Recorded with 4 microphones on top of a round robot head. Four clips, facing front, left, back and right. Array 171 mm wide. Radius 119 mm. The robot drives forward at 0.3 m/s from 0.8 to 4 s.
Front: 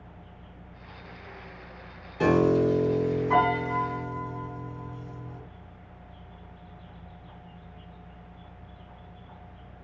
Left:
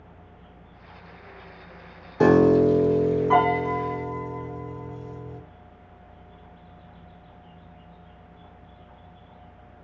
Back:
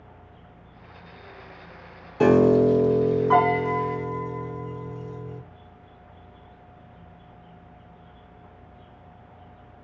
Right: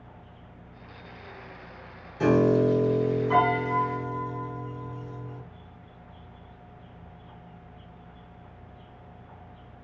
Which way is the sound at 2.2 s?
120° left.